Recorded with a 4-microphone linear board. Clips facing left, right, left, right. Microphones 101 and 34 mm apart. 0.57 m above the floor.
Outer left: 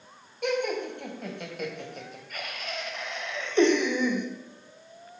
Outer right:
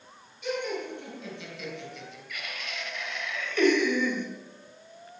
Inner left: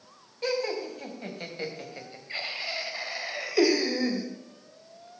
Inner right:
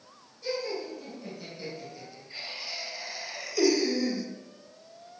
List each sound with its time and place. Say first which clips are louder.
0.4 s laughter: outer left 4 dB, inner left 4 dB; 60° left (ahead or behind), 3.5 m; by 4.3 s 15° left (ahead or behind), 2 m